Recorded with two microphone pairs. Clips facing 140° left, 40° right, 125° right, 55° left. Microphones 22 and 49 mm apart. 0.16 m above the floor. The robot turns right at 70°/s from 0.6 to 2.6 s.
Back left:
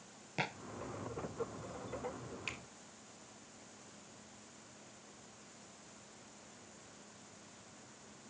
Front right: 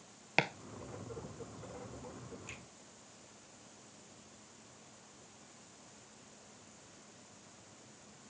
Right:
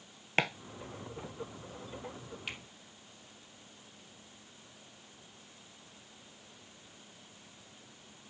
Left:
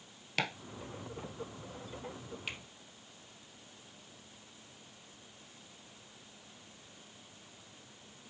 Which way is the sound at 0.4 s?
70° right.